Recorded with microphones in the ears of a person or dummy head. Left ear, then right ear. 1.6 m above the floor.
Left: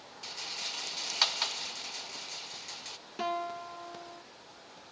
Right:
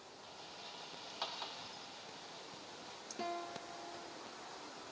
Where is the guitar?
45° left (ahead or behind), 0.6 m.